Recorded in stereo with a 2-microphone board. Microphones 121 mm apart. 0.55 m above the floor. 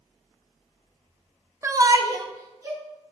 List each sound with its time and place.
1.6 s a shout: 25° right (ahead or behind), 0.7 m